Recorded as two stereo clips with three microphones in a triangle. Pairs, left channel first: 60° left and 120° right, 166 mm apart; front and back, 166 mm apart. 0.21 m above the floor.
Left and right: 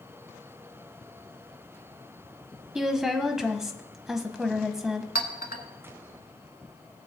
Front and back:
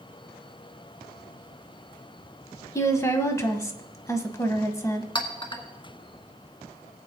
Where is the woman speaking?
35° right, 1.0 m.